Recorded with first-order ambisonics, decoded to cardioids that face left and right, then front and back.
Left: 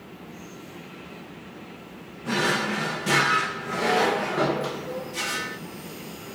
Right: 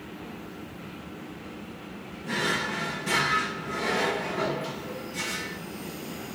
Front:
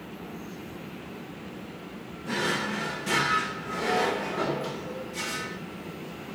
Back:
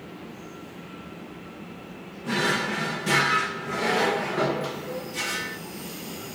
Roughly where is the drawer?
Behind left.